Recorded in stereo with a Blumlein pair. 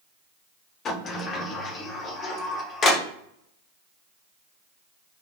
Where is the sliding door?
25° left, 0.9 m.